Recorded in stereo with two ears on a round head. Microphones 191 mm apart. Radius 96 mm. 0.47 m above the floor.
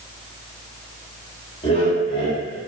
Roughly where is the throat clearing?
No throat clearing in this recording.